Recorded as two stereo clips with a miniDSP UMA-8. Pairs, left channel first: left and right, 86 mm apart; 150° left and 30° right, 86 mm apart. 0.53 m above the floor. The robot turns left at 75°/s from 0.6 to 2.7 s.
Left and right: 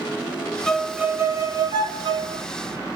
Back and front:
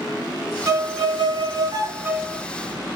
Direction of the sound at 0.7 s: 5° left.